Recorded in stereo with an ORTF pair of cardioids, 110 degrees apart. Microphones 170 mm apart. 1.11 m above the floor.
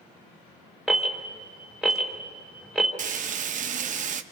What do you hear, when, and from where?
0.9 s an alarm: 5° right, 3 m
3.0 s frying: 50° right, 0.9 m